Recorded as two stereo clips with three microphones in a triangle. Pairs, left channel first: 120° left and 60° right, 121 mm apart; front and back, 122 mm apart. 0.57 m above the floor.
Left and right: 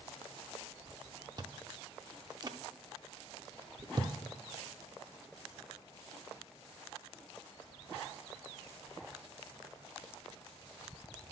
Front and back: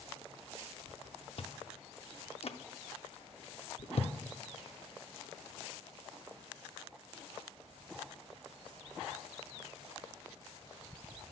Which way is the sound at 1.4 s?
15° right.